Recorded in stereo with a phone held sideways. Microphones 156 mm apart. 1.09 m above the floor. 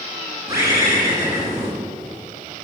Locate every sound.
0.5 s a bird: 20° right (ahead or behind), 10 m